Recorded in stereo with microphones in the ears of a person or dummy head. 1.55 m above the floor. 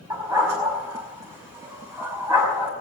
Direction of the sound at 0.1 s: 15° right (ahead or behind).